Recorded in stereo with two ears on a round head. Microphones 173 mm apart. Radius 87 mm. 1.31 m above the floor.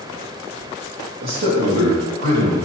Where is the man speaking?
75° right (ahead or behind), 1.5 m; by 2.5 s 85° right, 2.5 m.